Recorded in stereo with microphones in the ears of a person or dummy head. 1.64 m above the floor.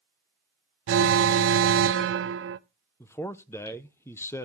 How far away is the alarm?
About 0.8 m.